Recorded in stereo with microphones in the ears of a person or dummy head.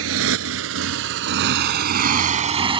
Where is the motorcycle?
75° right (ahead or behind); by 2.8 s 15° right (ahead or behind).